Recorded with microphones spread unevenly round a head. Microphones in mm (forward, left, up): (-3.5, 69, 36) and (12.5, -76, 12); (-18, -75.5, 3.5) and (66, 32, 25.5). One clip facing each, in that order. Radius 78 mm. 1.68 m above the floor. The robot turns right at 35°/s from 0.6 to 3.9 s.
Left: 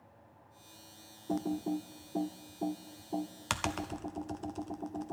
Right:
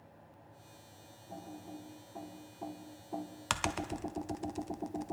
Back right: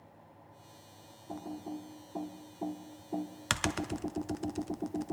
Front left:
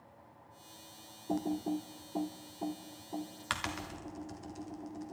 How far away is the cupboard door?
No cupboard door in this recording.